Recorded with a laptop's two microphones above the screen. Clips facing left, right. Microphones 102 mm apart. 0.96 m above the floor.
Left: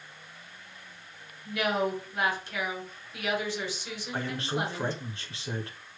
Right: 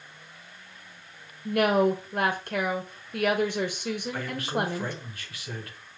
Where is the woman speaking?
55° right (ahead or behind), 1.0 m.